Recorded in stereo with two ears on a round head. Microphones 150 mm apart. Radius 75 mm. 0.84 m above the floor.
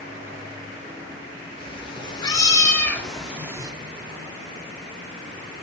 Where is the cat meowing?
35° left (ahead or behind), 1.6 m; by 3.7 s 25° right (ahead or behind), 0.7 m.